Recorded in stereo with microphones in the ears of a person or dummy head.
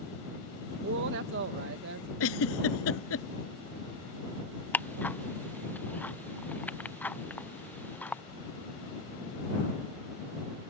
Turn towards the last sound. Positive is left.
turn(degrees=10)  # may be behind; listen again after turning